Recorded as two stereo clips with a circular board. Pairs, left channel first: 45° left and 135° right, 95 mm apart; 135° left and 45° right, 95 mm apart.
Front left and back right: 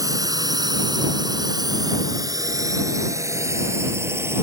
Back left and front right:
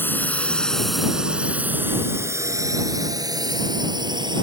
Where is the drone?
165° right; by 4.4 s 75° right.